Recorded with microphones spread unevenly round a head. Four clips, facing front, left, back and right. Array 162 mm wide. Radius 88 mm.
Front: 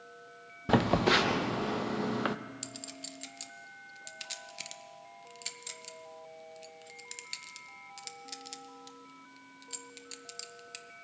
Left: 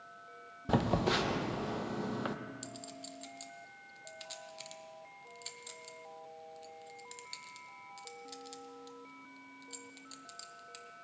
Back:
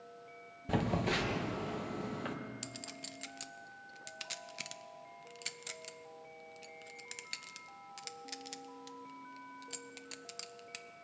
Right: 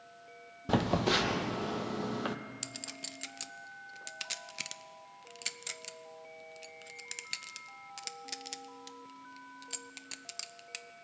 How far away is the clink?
About 0.6 m.